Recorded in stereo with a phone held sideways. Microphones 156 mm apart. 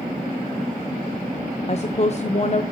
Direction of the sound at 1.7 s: 45° left (ahead or behind).